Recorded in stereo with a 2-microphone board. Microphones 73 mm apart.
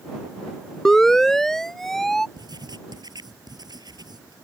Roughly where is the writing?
Right.